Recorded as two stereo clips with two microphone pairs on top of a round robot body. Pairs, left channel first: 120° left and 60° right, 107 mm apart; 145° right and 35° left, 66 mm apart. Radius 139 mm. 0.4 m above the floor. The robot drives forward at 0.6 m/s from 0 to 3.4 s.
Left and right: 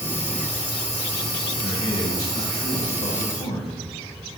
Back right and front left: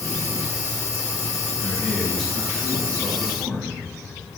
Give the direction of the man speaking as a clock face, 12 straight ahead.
8 o'clock.